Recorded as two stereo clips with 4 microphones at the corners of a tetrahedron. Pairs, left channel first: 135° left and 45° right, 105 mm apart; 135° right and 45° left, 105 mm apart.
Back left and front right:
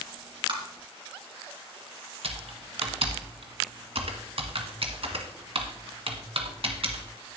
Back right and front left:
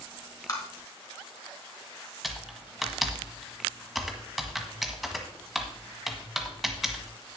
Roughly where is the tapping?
Right.